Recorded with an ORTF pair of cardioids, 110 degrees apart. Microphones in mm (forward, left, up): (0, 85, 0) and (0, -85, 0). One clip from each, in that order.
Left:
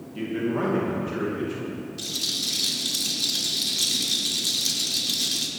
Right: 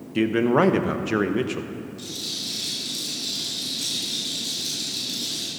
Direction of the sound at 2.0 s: 55° left.